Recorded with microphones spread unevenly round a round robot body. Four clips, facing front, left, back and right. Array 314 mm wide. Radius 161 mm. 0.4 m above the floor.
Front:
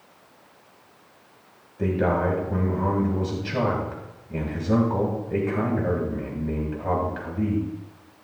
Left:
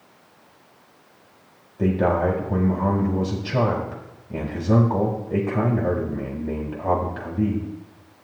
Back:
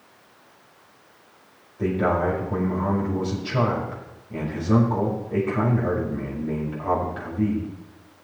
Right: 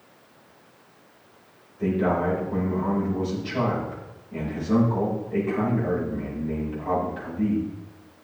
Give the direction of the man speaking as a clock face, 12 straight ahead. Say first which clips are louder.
Left 3 dB, back 1 dB; 10 o'clock.